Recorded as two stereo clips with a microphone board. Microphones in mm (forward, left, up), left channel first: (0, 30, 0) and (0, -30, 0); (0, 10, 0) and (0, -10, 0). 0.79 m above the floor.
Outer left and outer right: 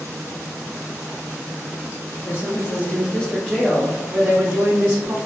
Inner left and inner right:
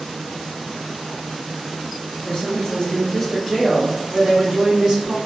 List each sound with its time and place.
2.2 s a woman speaking: 40° left (ahead or behind), 0.9 m; by 5.2 s 35° right (ahead or behind), 1.4 m